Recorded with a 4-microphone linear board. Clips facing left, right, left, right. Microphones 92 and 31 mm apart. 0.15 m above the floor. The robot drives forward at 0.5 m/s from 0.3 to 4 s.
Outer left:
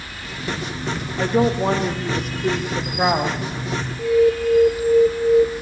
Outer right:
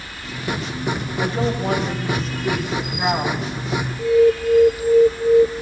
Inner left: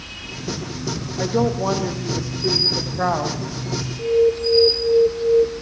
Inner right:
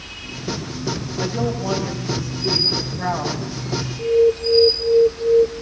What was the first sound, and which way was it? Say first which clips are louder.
A woman speaking: outer left 5 dB, inner left 5 dB; 60° left (ahead or behind).